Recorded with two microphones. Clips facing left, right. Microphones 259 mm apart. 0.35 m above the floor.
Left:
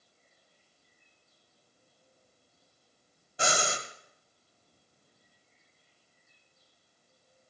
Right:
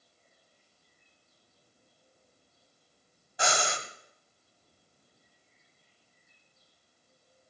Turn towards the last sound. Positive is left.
turn(degrees=30)  # may be behind; listen again after turning